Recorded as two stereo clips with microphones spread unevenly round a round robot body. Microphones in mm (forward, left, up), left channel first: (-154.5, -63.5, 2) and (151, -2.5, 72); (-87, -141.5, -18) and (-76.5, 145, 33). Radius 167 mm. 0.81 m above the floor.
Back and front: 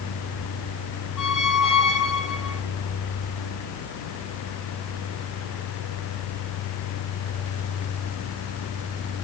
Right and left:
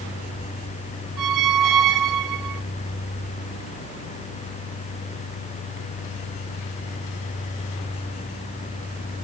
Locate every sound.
1.2 s a squeak: 105° left, 0.7 m